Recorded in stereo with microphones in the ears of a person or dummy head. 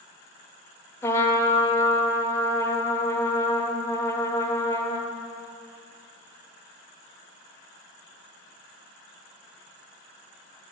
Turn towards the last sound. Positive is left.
turn(degrees=10)  # may be behind; listen again after turning